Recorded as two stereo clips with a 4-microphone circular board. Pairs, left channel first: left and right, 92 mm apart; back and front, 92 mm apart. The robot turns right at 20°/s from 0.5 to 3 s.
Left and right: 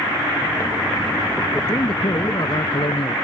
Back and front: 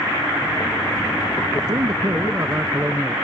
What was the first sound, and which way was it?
A man speaking, 45° left.